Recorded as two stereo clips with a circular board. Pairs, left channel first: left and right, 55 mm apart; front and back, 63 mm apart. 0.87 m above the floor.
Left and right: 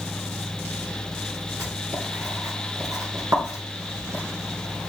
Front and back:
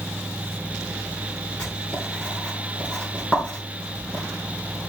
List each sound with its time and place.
1.6 s writing: 70° right, 5 m